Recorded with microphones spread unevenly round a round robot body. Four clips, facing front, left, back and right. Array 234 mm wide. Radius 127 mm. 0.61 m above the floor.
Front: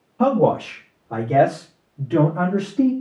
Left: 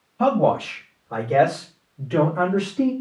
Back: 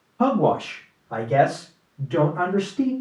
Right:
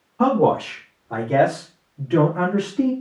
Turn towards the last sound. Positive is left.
turn(degrees=-25)